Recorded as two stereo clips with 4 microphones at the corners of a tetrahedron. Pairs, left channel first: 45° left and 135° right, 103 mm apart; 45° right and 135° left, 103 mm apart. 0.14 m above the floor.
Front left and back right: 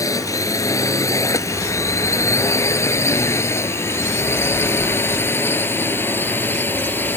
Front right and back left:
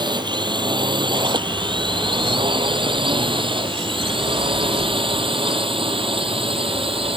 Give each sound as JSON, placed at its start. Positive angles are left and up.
{"t": 0.0, "sound": "a drone", "azimuth_deg": 100}